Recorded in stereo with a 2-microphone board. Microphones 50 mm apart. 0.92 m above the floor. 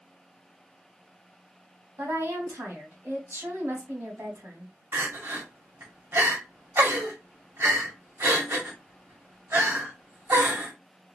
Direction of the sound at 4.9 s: 60° right (ahead or behind).